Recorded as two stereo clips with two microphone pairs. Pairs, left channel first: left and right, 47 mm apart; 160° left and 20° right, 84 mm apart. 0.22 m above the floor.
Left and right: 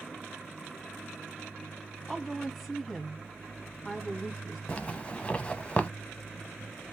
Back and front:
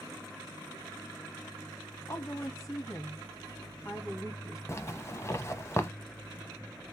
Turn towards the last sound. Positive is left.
turn(degrees=135)